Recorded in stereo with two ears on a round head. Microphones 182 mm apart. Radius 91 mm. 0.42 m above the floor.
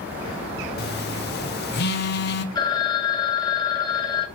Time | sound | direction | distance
0.8 | a phone buzzing | 55° left (ahead or behind) | 0.7 m
2.5 | a phone ringing | 20° left (ahead or behind) | 1.3 m